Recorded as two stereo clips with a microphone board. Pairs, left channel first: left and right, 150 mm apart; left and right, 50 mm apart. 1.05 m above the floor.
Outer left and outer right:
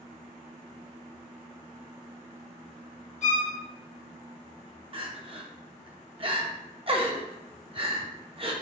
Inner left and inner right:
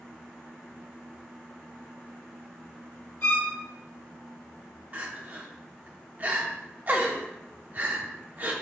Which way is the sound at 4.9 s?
40° right (ahead or behind).